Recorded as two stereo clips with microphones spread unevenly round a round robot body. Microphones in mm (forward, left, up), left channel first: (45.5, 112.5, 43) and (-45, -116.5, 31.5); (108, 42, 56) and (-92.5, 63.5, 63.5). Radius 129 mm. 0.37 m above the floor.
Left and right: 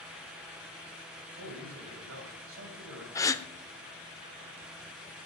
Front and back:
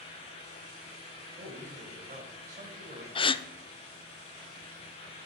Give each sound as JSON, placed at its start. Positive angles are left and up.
{"t": 1.4, "sound": "a man speaking", "azimuth_deg": -135, "distance_m": 2.0}
{"t": 3.1, "sound": "a gasp", "azimuth_deg": 0, "distance_m": 0.6}